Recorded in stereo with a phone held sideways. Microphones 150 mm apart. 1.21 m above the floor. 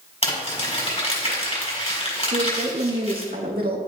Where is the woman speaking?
80° right, 1.8 m.